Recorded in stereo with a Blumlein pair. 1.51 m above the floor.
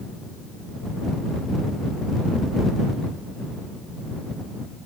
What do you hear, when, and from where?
Only background noise.